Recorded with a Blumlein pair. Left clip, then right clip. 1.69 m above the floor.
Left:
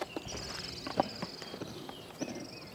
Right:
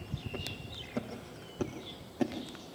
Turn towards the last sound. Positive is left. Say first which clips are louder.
# left 1 dB
turn(degrees=-60)